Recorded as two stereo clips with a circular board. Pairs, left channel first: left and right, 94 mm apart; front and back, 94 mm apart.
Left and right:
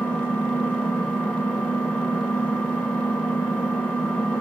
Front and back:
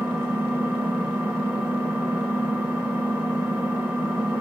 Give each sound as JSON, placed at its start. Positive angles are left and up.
{"t": 0.0, "sound": "an engine running", "azimuth_deg": 140, "distance_m": 0.7}